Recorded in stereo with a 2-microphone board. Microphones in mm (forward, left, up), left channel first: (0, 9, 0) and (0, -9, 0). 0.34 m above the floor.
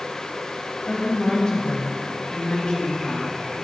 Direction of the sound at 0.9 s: 30° left (ahead or behind).